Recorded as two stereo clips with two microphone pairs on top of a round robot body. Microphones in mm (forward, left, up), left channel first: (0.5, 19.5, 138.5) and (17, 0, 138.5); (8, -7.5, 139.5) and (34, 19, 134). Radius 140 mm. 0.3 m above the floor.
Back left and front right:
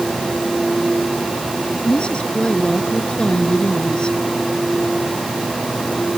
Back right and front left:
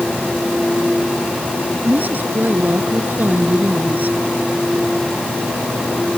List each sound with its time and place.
1.8 s a woman speaking: 80° left